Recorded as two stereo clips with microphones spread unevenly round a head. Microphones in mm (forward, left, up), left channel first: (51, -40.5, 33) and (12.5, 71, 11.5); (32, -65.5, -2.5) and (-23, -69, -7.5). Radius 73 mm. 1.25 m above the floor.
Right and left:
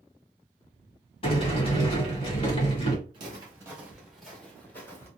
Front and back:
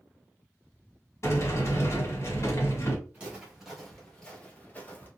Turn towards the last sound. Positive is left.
turn(degrees=-25)